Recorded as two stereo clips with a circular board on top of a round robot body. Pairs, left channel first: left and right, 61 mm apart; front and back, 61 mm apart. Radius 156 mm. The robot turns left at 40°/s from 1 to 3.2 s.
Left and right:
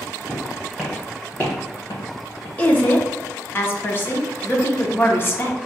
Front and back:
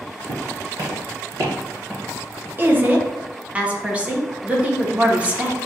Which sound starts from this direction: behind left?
A woman speaking, at 2.6 s.